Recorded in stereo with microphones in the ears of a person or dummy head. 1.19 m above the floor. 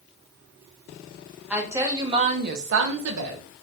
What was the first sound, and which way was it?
A woman speaking, 5° right (ahead or behind).